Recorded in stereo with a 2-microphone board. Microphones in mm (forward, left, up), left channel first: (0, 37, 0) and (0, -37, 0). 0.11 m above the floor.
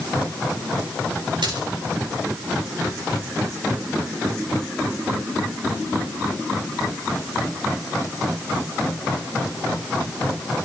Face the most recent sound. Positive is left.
turn(degrees=-85)